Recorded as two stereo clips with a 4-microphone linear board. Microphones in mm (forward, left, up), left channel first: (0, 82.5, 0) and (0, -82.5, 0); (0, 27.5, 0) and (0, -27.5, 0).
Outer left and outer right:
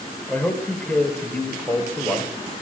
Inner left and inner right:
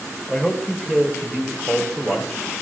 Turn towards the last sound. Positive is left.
turn(degrees=10)  # may be behind; listen again after turning